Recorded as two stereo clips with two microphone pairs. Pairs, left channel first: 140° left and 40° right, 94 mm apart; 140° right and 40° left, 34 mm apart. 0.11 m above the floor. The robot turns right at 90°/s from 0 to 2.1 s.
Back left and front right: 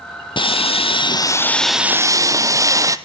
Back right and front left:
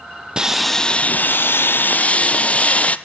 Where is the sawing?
110° left, 0.7 m; by 3.0 s 90° right, 0.7 m.